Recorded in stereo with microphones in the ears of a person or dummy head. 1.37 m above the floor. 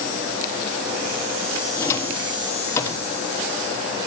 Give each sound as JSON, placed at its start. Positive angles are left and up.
{"t": 1.8, "sound": "a drawer", "side_deg": 20, "distance_m": 1.3}